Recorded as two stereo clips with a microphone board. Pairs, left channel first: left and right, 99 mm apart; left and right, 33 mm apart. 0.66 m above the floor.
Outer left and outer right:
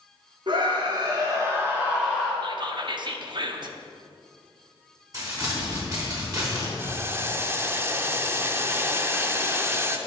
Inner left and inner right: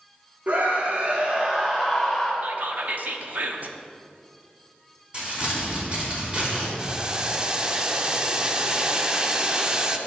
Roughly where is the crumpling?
Right.